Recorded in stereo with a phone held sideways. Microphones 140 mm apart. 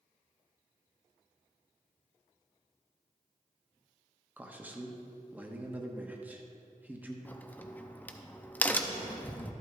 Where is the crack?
10° left (ahead or behind), 0.6 m.